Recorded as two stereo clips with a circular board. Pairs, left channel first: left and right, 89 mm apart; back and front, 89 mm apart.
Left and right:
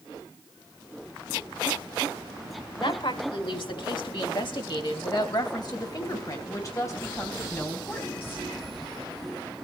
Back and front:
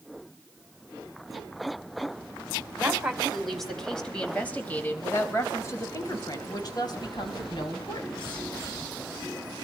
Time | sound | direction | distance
2.8 | a woman speaking | 80° left | 4.5 m